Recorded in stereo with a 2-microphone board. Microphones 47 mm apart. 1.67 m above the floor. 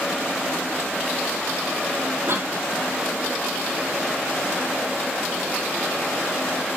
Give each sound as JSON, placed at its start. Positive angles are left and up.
{"t": 2.3, "sound": "a cough", "side_deg": -65, "distance_m": 3.5}